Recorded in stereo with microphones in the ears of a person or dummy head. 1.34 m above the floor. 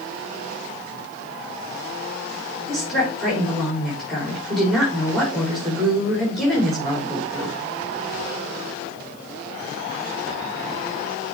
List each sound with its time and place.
2.7 s a woman speaking: 5° right (ahead or behind), 4 m